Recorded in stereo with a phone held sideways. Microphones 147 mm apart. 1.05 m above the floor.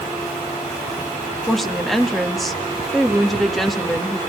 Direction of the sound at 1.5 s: Centre (ahead or behind).